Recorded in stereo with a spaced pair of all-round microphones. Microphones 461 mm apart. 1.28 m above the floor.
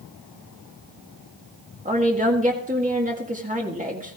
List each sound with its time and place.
1.9 s a woman speaking: 15° right (ahead or behind), 1.9 m